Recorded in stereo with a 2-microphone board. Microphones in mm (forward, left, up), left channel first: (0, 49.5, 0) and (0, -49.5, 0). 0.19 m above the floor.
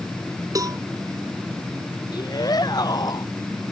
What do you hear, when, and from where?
0.6 s a cowbell: 40° right (ahead or behind)
2.1 s a shout: 45° left (ahead or behind)